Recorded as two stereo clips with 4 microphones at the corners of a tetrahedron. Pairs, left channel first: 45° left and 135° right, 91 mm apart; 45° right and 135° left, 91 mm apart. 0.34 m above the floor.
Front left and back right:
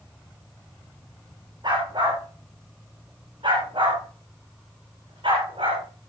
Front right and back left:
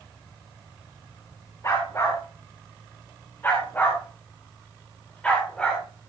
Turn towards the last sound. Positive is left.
turn(degrees=-125)